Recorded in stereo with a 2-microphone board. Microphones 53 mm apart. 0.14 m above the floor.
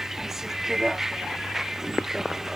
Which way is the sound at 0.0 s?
10° right (ahead or behind).